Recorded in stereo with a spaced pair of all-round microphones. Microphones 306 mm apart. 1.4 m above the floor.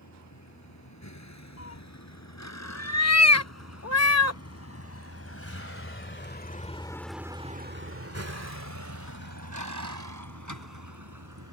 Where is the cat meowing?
55° left (ahead or behind).